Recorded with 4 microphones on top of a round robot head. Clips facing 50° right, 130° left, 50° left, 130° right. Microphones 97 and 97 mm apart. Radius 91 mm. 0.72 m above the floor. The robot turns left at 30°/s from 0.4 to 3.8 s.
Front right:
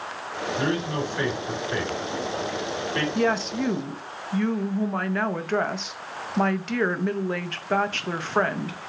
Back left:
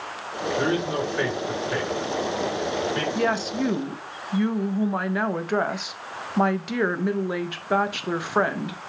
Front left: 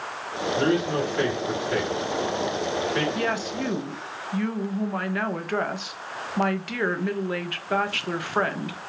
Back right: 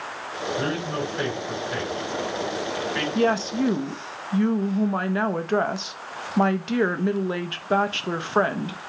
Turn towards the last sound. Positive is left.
turn(degrees=-160)